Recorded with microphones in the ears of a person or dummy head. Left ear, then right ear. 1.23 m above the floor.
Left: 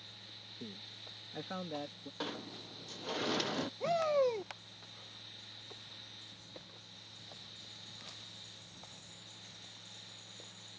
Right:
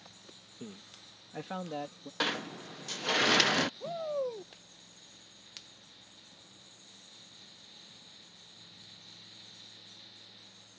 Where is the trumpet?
No trumpet in this recording.